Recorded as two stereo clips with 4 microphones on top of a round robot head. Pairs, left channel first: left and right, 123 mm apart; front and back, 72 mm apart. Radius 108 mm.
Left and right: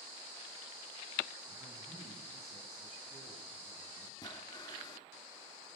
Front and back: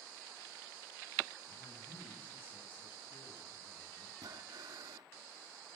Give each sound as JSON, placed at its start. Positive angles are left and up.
{"t": 1.5, "sound": "a man speaking", "azimuth_deg": 0, "distance_m": 9.5}
{"t": 4.2, "sound": "breathing", "azimuth_deg": 145, "distance_m": 1.5}